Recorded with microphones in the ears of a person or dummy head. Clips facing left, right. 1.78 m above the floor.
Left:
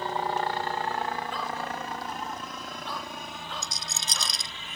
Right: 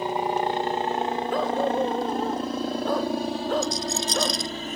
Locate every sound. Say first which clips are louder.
0.0 s a helicopter: right 4 dB; 15° right (ahead or behind); by 4.8 s 40° right (ahead or behind)
1.3 s a dog barking: right 11 dB; 45° right (ahead or behind)
3.6 s a rattle: right 14 dB; 80° left